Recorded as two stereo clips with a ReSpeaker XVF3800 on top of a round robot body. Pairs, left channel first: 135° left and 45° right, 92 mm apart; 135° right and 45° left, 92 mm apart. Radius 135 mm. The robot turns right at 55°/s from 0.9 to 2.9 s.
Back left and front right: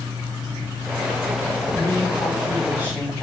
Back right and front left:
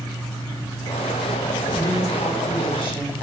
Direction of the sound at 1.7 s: 175° right.